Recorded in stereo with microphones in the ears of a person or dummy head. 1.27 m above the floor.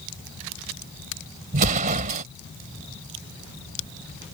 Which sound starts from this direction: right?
An explosion, at 1.5 s.